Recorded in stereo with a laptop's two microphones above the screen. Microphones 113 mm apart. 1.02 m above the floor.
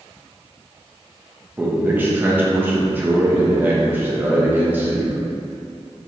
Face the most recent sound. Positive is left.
turn(degrees=-15)  # may be behind; listen again after turning